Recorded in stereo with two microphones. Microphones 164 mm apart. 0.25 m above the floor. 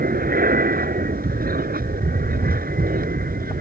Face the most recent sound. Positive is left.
turn(degrees=-70)  # may be behind; listen again after turning